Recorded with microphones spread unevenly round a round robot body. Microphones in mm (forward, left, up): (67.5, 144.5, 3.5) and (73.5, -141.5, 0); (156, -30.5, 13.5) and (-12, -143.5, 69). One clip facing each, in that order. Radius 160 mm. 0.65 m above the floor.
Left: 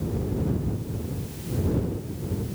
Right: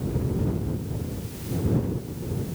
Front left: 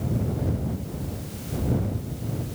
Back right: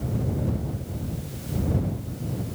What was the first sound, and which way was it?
Only background noise.